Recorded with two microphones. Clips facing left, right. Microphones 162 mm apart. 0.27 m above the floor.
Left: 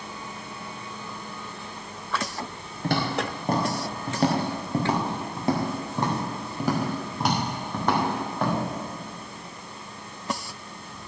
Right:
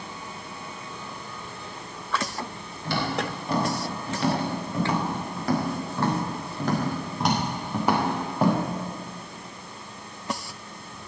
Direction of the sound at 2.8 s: 55° left (ahead or behind).